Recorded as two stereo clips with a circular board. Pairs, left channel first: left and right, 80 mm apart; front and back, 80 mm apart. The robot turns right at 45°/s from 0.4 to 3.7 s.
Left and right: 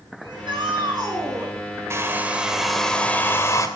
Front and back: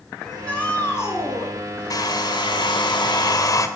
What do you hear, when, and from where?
0.2 s a shout: 90° right, 9 m; by 1.5 s 35° right, 9 m
1.9 s a hair dryer: 35° right, 1.9 m; by 3.7 s 45° left, 1.9 m